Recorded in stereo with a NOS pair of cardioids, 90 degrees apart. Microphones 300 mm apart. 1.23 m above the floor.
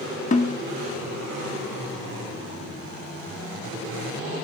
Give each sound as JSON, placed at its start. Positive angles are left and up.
{"t": 0.3, "sound": "a snare drum", "azimuth_deg": 25, "distance_m": 1.6}